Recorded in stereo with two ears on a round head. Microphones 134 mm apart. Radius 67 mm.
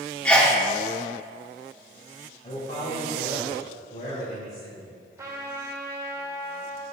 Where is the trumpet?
15° right (ahead or behind), 2 m.